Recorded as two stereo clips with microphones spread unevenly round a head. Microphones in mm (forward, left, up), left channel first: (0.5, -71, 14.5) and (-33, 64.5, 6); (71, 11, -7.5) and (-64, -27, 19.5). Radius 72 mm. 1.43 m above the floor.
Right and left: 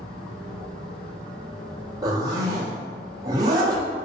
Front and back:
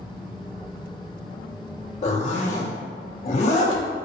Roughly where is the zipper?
Ahead left.